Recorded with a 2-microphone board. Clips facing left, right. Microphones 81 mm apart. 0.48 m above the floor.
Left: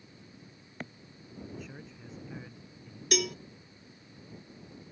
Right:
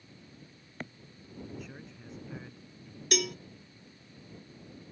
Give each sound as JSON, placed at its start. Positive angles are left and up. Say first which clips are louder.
{"t": 1.5, "sound": "a man speaking", "louder": "even", "side_deg": 0}
{"t": 3.1, "sound": "a cowbell", "louder": "left 1 dB", "side_deg": 0}